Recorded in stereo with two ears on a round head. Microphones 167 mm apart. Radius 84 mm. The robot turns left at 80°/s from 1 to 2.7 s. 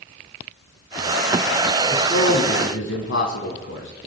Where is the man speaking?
150° left, 6 m; by 3.9 s 85° left, 6 m.